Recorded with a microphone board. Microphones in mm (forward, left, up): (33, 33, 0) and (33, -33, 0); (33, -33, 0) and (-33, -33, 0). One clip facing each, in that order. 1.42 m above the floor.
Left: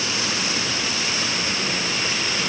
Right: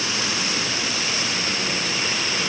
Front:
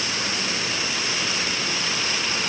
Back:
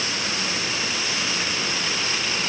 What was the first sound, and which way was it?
Only background noise.